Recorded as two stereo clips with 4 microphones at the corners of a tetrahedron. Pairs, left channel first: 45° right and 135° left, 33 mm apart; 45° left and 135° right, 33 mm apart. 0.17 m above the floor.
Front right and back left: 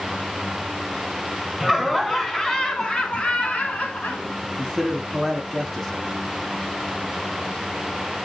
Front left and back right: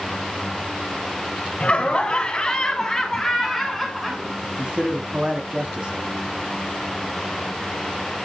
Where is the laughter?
45° left, 1.4 m; by 4.3 s 50° right, 1.9 m.